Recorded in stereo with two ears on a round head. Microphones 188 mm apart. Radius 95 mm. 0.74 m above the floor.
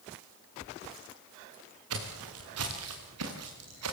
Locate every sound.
1.9 s footsteps: 75° right (ahead or behind), 5.5 m; by 3.9 s 80° right, 6 m